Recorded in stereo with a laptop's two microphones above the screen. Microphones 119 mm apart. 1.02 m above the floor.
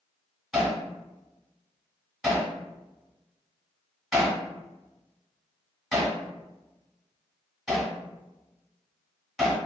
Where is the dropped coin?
No dropped coin in this recording.